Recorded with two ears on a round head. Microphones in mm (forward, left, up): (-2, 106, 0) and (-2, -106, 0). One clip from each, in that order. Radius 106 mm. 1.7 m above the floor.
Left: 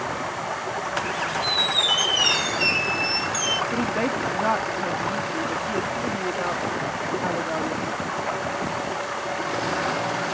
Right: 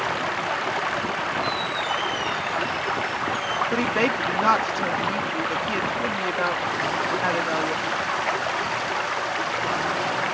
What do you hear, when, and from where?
0.0 s running water: 75° right (ahead or behind)
1.4 s a squeak: 65° left (ahead or behind)
3.7 s a woman speaking: 75° right (ahead or behind)